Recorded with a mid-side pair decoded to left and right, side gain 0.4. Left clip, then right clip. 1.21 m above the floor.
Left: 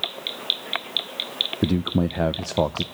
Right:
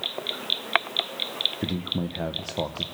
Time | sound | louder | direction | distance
1.6 | a man speaking | left 5 dB | 60° left | 0.8 m